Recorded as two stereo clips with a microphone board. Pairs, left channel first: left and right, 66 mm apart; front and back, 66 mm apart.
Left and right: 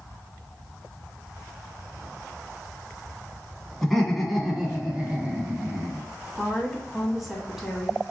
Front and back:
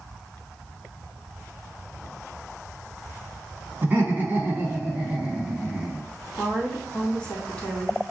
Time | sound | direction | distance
3.8 | laughter | 170° left | 1.5 m
6.4 | a woman speaking | 10° right | 1.4 m